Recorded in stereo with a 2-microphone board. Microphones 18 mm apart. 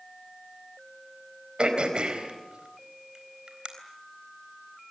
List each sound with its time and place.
1.6 s throat clearing: 65° right (ahead or behind), 3.5 m